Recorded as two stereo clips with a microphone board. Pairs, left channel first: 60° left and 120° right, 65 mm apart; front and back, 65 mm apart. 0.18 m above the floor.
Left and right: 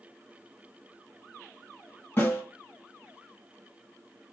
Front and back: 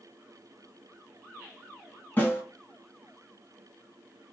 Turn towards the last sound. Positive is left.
turn(degrees=35)